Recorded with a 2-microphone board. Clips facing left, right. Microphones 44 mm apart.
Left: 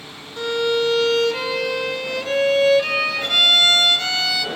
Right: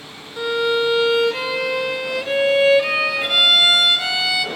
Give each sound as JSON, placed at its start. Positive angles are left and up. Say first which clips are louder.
{"t": 0.4, "sound": "a violin", "louder": "right 1 dB", "side_deg": -10, "distance_m": 0.6}